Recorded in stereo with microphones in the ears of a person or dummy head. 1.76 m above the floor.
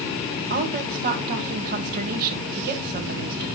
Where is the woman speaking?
50° right (ahead or behind), 1.7 m.